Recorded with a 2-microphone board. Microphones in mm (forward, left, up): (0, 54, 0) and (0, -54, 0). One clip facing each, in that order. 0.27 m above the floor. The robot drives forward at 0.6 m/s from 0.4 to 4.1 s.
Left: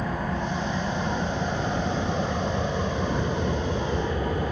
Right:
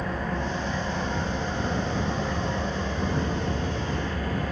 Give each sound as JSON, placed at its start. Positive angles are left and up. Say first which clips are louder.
{"t": 0.0, "sound": "an engine running", "louder": "left 1 dB", "side_deg": 10, "distance_m": 4.0}